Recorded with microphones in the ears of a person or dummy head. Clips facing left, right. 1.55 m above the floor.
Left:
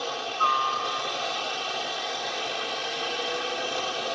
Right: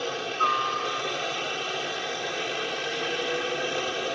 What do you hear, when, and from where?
0.0 s a helicopter: 25° right (ahead or behind)